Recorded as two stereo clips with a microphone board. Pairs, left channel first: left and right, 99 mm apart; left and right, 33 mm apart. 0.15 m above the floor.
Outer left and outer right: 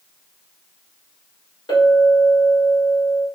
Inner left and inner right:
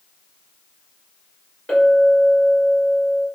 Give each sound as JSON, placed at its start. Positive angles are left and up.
{"t": 1.7, "sound": "a clink", "side_deg": 45, "distance_m": 1.9}